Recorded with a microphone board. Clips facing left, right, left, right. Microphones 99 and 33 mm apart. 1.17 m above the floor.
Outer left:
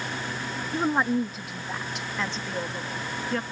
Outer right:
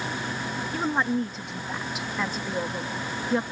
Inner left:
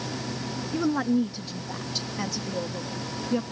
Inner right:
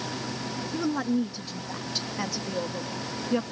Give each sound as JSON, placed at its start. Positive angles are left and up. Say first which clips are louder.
{"t": 0.7, "sound": "a woman speaking", "louder": "outer left 2 dB, inner left 3 dB", "side_deg": 15}